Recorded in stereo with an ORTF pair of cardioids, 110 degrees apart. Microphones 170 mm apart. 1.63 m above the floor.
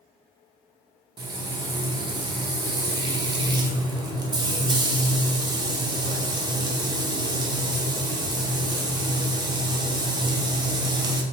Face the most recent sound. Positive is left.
turn(degrees=-25)